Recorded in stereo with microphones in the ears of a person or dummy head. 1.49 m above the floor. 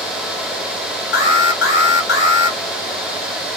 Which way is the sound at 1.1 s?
70° left (ahead or behind).